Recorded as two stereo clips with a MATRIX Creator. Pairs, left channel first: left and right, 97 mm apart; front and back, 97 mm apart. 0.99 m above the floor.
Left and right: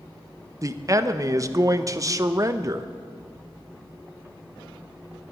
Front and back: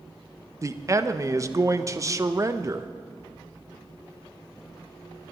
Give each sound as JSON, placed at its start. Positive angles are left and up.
{"t": 0.6, "sound": "a man speaking", "azimuth_deg": -135, "distance_m": 0.7}